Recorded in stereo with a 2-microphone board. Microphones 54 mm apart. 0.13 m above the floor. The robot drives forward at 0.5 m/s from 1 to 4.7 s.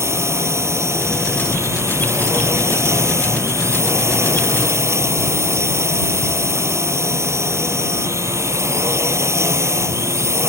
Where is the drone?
65° right (ahead or behind).